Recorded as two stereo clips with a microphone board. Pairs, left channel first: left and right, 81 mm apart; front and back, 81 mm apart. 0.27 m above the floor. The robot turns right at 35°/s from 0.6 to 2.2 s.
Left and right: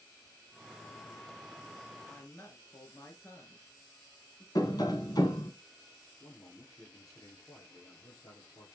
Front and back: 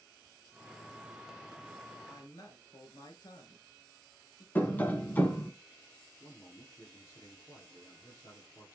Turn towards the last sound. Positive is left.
turn(degrees=55)